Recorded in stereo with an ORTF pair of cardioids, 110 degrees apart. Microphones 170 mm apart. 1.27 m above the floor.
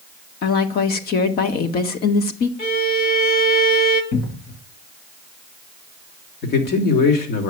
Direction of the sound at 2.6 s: 60° left.